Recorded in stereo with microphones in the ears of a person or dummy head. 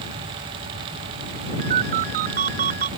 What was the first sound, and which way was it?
A ringtone, 50° right (ahead or behind).